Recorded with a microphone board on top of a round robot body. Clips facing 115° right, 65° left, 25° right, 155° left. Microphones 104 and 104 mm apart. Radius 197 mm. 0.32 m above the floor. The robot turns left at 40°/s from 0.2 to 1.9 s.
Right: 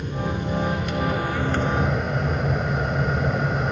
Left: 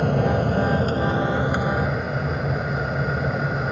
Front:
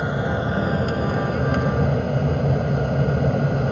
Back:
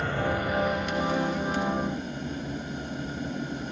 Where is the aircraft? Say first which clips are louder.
Left 7 dB, front 4 dB; 50° left; by 3.7 s 20° right.